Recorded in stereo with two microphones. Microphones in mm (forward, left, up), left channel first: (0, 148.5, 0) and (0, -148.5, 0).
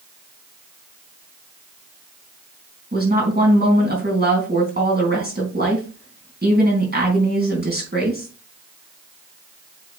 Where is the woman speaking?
35° right (ahead or behind), 3.5 m.